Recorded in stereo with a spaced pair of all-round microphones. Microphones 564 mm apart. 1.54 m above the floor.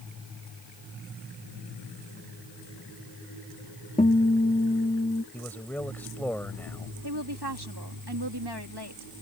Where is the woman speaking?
45° right (ahead or behind).